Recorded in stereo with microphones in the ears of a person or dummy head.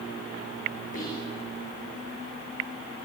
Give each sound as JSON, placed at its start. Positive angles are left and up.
{"t": 0.9, "sound": "whispering", "side_deg": 50, "distance_m": 5.5}